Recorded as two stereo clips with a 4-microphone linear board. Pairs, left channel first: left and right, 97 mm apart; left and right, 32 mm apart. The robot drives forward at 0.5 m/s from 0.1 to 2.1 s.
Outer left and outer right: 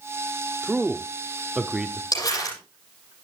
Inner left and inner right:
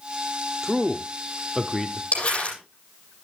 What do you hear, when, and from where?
0.6 s a man speaking: 10° right (ahead or behind), 0.7 m
2.1 s crumpling: 40° left (ahead or behind), 8.5 m